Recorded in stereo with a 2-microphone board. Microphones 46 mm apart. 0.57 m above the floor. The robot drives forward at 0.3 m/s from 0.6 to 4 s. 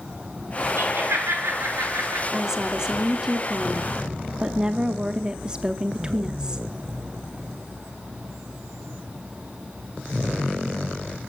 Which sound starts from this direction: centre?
A woman speaking, at 2.3 s.